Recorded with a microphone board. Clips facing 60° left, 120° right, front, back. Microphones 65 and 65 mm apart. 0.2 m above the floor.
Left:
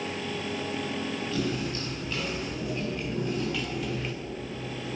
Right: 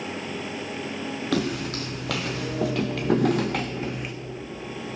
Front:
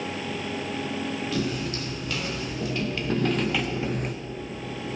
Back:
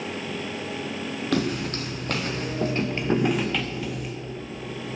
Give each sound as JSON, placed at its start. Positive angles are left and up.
{"t": 1.3, "sound": "footsteps", "azimuth_deg": -145, "distance_m": 2.5}